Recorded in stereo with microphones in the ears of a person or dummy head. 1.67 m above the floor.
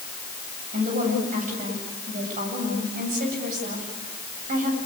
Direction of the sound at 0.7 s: 45° right (ahead or behind).